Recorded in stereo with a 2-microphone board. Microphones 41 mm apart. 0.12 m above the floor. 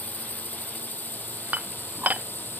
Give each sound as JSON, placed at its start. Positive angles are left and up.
{"t": 0.0, "sound": "a drone", "side_deg": 45}
{"t": 1.5, "sound": "dishes clattering", "side_deg": -45}